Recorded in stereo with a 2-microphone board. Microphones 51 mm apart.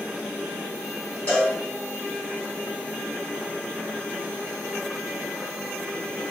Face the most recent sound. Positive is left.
turn(degrees=30)  # may be behind; listen again after turning